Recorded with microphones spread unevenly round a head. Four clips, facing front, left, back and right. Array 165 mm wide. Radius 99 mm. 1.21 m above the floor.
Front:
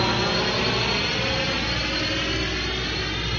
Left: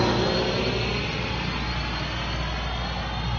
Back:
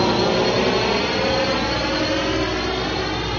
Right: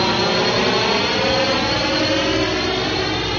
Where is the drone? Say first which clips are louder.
Right 5 dB, back 6 dB; 175° right; by 3.4 s 115° right.